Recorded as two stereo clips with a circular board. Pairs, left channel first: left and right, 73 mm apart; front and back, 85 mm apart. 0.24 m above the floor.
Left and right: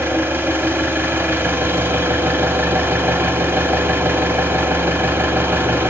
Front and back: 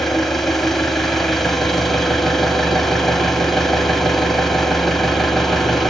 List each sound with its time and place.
0.0 s an engine running: 85° right, 0.8 m